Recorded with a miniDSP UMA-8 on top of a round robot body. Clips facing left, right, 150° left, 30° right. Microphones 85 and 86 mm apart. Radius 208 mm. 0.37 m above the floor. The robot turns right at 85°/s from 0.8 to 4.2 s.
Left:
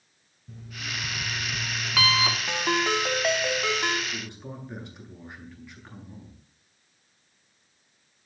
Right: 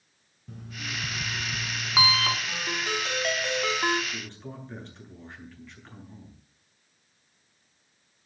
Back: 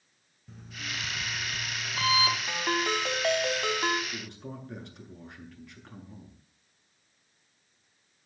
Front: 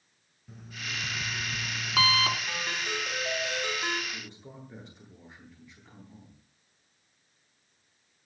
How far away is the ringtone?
About 3 m.